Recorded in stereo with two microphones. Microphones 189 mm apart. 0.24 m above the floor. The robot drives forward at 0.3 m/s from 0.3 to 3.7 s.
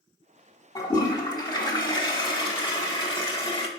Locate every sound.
0.8 s a toilet flushing: 20° left (ahead or behind), 1.5 m; by 3.7 s 30° left (ahead or behind), 1.1 m